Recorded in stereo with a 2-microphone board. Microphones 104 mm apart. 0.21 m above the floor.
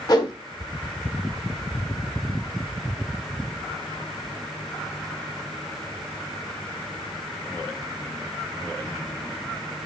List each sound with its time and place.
0.1 s a whoosh: 40° left (ahead or behind), 1.1 m